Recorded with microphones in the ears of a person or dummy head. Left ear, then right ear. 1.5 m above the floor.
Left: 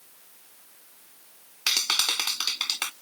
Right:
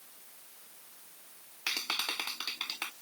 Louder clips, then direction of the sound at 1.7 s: Left 9 dB; 30° left (ahead or behind).